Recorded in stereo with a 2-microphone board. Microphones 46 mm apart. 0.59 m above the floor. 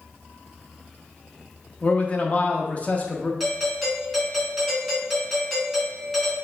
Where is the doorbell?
5° left (ahead or behind), 1.7 m.